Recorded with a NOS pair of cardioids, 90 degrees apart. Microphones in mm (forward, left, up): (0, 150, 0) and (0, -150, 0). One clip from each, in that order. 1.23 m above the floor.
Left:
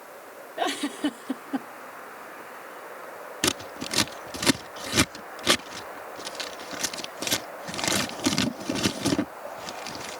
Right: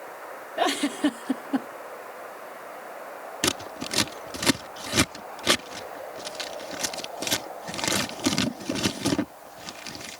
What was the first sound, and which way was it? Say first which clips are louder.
A giggle: right 3 dB; 20° right.